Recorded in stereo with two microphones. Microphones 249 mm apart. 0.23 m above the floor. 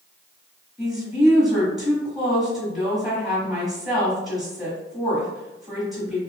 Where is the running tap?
I don't hear a running tap.